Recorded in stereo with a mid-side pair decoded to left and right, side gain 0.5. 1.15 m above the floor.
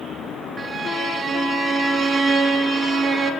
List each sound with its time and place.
0.6 s a violin: 35° right, 1.5 m